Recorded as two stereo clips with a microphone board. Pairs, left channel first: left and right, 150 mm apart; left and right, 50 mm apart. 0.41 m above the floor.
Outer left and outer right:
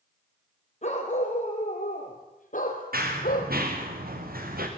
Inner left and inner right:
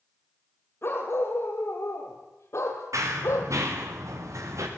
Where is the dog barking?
50° left (ahead or behind), 6 m; by 3.5 s 70° left (ahead or behind), 5 m.